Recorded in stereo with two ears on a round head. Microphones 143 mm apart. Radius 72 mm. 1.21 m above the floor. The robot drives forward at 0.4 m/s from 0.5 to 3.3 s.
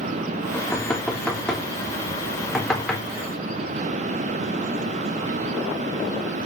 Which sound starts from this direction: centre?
Knocking, at 0.5 s.